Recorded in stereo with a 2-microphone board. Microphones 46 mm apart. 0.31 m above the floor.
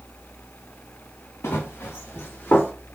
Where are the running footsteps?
80° left, 1.3 m; by 2.7 s 45° left (ahead or behind), 2 m.